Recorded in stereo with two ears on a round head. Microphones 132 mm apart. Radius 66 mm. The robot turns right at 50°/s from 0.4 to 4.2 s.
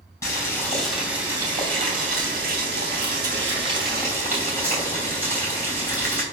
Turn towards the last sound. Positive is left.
turn(degrees=-15)